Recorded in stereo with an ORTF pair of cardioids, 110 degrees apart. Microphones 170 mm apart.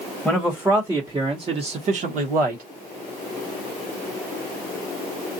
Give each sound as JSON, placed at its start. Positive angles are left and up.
{"t": 0.2, "sound": "a man speaking", "azimuth_deg": -5, "distance_m": 1.3}